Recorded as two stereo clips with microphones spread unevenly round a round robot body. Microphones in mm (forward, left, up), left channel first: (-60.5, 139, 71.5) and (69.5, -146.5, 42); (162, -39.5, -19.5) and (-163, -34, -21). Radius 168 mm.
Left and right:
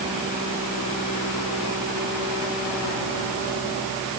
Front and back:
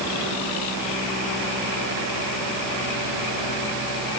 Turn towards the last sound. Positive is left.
No sound to turn to.